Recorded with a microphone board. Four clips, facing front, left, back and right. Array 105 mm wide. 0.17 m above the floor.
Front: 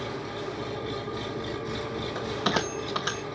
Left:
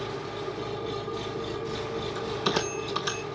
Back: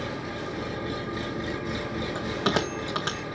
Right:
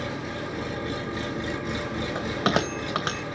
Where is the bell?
100° right, 2.5 m.